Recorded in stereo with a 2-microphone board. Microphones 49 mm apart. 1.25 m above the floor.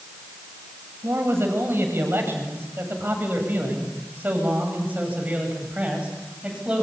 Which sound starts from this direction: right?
A man speaking, at 1.0 s.